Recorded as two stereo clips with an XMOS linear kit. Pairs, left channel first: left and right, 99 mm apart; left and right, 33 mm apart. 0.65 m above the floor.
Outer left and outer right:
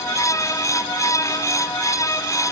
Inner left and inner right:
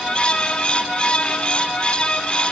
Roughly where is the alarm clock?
I don't hear an alarm clock.